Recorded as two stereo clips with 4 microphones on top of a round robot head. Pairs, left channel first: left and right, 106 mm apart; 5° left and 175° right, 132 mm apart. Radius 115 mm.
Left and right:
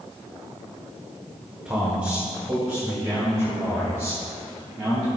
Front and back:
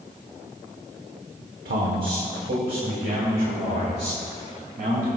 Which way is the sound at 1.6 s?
165° right.